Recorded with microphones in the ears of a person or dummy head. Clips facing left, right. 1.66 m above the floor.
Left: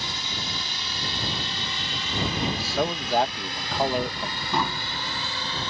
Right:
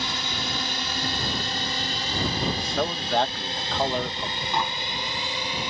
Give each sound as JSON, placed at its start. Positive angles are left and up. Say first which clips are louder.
{"t": 0.0, "sound": "a drone", "louder": "right 4 dB", "side_deg": -55}
{"t": 2.4, "sound": "a man speaking", "louder": "left 2 dB", "side_deg": 5}
{"t": 4.5, "sound": "tapping", "louder": "left 2 dB", "side_deg": 65}